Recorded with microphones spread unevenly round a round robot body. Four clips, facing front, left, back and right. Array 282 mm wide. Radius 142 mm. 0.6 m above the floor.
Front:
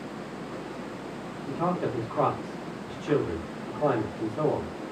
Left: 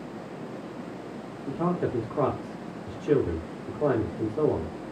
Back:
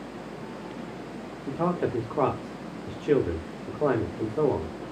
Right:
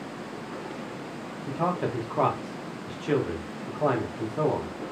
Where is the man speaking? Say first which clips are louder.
Even, back 1 dB; 150° left, 0.7 m.